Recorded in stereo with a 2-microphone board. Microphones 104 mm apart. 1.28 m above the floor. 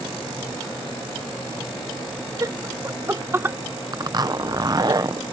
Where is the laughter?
35° right (ahead or behind); by 3.6 s 20° right (ahead or behind).